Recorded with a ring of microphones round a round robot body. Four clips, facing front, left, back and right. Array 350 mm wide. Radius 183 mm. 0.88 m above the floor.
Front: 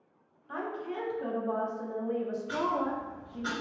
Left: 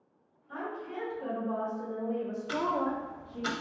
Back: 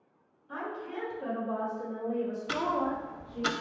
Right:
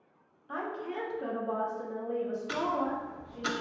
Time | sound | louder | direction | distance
0.5 | a woman speaking | right 2 dB, front 1 dB | 60° right | 1.4 m
2.5 | ticking | left 2 dB, even | 175° right | 0.6 m